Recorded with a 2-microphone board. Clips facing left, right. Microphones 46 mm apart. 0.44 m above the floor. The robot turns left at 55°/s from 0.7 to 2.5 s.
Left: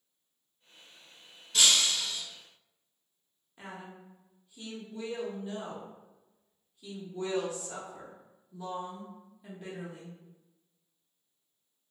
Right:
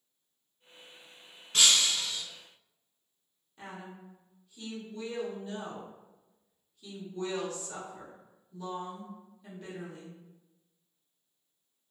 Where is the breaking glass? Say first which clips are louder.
Even; 130° right, 1.3 m; by 2.2 s 170° right, 1.3 m.